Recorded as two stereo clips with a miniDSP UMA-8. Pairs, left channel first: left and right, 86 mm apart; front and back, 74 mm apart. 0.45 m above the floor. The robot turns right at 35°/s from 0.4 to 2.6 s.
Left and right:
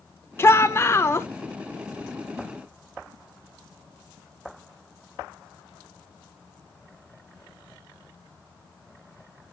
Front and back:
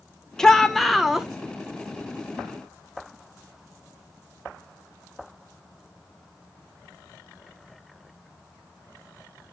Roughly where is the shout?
Left.